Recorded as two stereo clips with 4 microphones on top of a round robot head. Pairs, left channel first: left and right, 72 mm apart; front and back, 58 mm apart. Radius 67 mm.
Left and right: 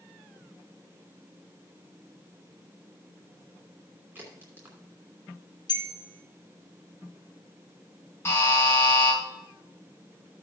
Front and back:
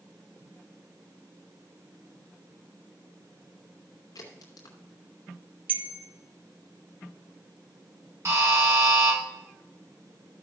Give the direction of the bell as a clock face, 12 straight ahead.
8 o'clock.